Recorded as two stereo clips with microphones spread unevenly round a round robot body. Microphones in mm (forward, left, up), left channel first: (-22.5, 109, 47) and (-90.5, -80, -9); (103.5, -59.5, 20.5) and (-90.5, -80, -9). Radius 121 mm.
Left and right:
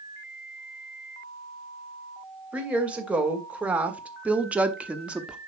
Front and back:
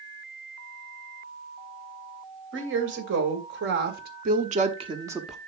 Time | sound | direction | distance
2.5 | a woman speaking | 170° left | 2.5 m